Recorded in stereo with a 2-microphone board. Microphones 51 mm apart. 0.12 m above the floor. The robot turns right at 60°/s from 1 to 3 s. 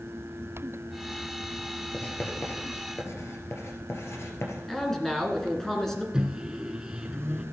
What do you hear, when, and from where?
1.9 s writing: 20° left (ahead or behind), 2 m; by 4.6 s 55° left (ahead or behind), 2 m
4.7 s a man speaking: 10° left (ahead or behind), 1.9 m
6.1 s a microwave: 15° right (ahead or behind), 0.9 m